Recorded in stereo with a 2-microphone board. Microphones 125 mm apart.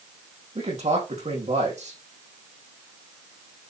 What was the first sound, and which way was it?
A man speaking, 65° right (ahead or behind).